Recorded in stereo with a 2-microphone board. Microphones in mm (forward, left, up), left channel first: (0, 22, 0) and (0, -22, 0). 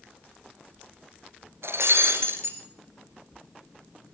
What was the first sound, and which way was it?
Breaking glass, 75° right (ahead or behind).